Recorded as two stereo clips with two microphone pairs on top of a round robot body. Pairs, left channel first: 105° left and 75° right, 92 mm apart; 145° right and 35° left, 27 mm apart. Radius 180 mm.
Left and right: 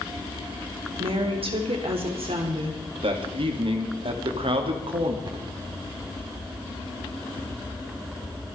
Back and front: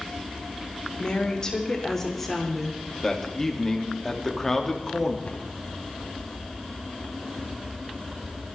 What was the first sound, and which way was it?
A woman speaking, 90° right.